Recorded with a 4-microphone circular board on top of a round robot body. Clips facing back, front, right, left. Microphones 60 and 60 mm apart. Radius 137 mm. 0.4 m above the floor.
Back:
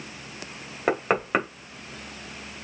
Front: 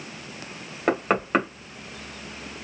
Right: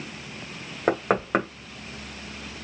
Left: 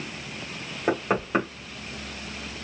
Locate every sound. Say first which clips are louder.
0.9 s knocking: front 1 dB, right 2 dB; 95° right, 1.9 m